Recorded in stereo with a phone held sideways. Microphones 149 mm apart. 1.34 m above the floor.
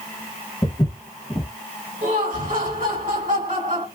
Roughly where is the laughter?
Right.